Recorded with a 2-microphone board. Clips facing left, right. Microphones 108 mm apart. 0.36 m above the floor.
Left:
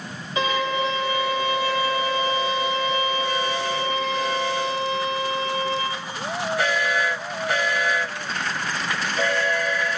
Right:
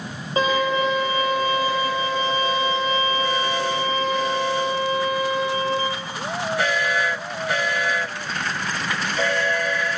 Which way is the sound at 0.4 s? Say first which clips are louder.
Right 3 dB; 35° right (ahead or behind).